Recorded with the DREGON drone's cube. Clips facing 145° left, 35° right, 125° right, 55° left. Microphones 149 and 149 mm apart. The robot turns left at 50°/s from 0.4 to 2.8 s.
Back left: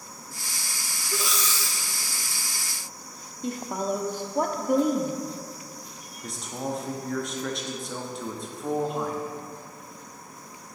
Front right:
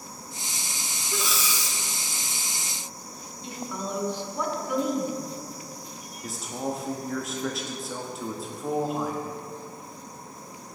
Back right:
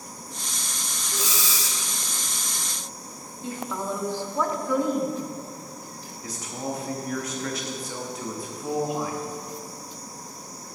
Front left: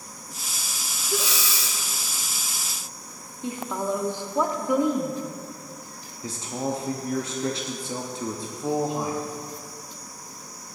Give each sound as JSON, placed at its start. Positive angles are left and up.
{"t": 1.1, "sound": "breathing", "azimuth_deg": 65, "distance_m": 0.5}
{"t": 3.4, "sound": "a woman speaking", "azimuth_deg": 125, "distance_m": 0.8}
{"t": 6.2, "sound": "a man speaking", "azimuth_deg": 50, "distance_m": 0.6}